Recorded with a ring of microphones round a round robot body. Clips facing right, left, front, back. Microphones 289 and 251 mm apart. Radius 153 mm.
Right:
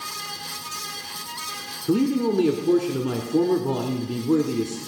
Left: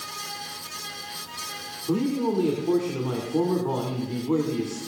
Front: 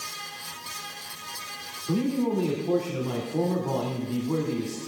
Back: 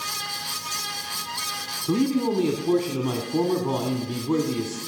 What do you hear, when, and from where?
1.9 s a man speaking: 145° right, 2 m